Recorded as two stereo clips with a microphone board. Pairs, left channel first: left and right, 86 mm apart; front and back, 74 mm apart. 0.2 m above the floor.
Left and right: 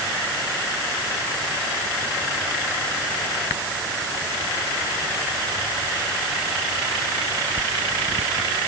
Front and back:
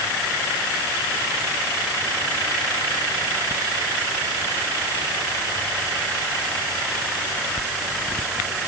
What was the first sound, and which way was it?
Only background noise.